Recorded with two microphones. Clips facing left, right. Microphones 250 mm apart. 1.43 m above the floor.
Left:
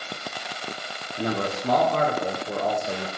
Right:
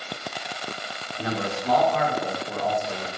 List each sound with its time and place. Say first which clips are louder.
1.2 s a man speaking: left 2 dB; 50° left (ahead or behind), 0.6 m